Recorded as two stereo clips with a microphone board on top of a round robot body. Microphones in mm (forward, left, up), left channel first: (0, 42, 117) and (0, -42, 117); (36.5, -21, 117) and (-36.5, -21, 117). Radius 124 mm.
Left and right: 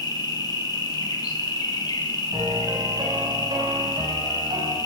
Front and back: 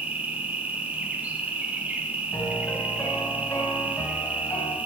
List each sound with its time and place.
0.0 s an insect: 115° left, 1.5 m
2.3 s a piano: 55° right, 1.8 m